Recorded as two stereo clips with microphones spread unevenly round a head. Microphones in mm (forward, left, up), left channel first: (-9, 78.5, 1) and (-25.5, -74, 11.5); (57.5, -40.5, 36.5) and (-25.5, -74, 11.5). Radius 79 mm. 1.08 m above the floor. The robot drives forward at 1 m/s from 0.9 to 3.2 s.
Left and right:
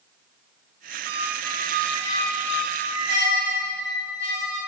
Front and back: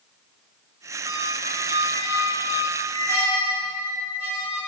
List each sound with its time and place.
1.1 s a squeak: 110° right, 1.0 m; by 4.6 s 160° right, 2.5 m